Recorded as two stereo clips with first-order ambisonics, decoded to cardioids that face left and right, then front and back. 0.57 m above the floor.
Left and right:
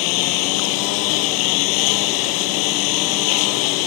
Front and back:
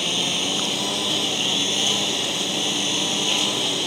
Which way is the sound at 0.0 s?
90° left.